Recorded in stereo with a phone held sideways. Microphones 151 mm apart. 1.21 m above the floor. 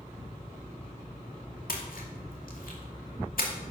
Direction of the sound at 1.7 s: 75° left (ahead or behind).